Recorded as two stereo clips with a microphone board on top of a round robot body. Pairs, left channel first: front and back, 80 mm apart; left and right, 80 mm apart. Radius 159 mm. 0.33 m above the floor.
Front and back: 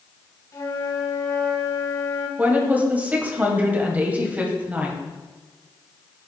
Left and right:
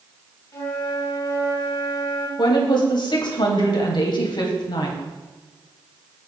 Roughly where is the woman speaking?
Left.